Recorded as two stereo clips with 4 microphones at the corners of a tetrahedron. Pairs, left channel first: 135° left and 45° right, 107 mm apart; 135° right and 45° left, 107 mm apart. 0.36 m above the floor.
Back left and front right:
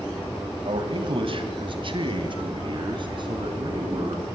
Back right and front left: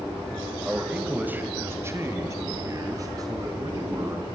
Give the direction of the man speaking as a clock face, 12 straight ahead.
1 o'clock.